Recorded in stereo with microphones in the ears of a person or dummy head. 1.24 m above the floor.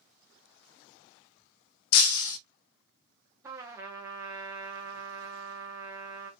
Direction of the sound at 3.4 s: 15° right (ahead or behind).